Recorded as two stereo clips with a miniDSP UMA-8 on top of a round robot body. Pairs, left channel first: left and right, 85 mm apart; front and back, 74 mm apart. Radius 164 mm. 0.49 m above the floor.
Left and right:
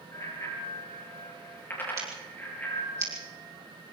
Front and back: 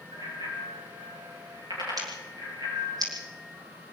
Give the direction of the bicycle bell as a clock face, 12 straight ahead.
7 o'clock.